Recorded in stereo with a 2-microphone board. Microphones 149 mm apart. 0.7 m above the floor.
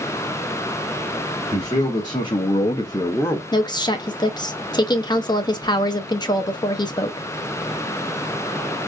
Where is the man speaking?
30° left (ahead or behind), 1.3 m; by 3.4 s 10° left (ahead or behind), 0.8 m.